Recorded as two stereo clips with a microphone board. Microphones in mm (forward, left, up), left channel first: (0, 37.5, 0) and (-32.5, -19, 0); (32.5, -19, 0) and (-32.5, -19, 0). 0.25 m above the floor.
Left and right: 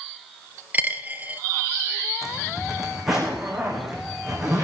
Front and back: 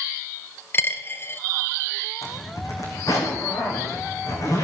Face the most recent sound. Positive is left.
turn(degrees=-35)